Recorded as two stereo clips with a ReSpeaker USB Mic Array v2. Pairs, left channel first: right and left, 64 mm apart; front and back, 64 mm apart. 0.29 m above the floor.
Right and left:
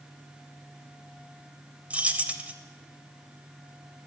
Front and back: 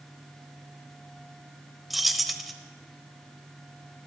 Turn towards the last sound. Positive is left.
turn(degrees=95)